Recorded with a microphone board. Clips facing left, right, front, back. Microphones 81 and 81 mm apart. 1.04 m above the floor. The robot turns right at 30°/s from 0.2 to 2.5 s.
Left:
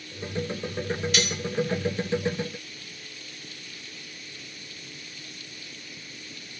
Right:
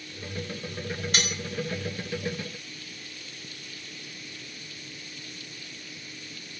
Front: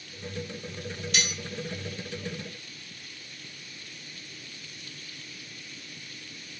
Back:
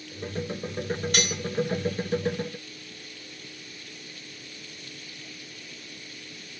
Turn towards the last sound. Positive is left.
turn(degrees=-100)